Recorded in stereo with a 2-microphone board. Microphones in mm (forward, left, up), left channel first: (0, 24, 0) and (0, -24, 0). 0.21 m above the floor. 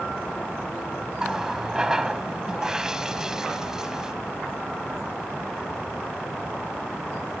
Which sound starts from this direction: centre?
A running tap, at 1.2 s.